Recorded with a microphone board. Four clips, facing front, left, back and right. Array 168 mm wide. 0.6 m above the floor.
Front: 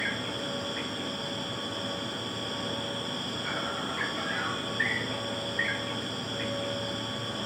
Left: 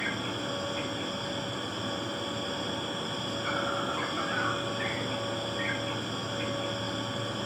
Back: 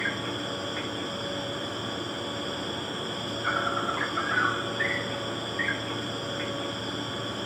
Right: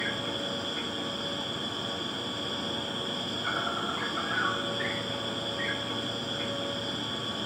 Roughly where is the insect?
Behind.